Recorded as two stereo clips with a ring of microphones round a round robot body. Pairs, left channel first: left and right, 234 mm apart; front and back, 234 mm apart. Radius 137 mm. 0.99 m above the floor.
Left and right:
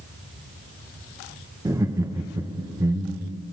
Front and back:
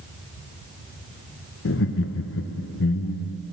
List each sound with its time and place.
1.6 s laughter: 15° right, 0.6 m